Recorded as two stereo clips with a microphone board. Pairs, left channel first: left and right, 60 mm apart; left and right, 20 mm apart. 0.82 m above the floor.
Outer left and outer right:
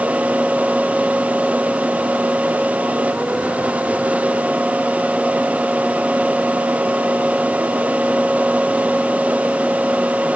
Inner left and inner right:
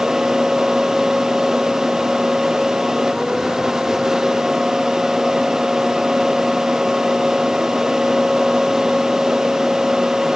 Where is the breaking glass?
I don't hear breaking glass.